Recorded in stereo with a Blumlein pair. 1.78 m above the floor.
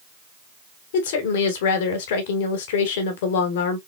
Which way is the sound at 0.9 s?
50° left.